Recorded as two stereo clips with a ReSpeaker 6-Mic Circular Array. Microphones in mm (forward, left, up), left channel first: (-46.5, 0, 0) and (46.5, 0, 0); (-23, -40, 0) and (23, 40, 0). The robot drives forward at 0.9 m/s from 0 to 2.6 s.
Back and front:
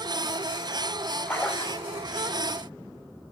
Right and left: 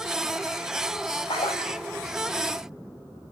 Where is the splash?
105° right, 1.2 m; by 1.8 s 125° right, 1.4 m.